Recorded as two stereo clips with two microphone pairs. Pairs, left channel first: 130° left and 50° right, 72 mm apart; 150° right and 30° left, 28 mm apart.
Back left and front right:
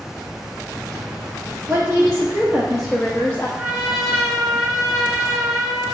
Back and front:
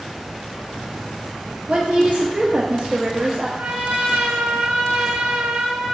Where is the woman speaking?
5° right, 1.5 m; by 3.5 s 70° left, 0.8 m.